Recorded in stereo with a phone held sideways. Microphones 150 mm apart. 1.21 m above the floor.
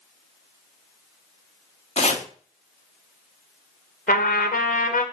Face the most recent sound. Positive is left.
turn(degrees=75)  # may be behind; listen again after turning